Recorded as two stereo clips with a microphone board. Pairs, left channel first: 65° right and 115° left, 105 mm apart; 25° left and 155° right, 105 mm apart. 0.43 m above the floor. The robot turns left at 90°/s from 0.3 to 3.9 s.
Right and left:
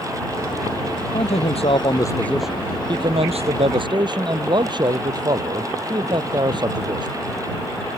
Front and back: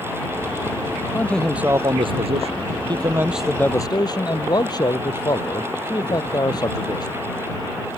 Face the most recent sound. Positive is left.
turn(degrees=70)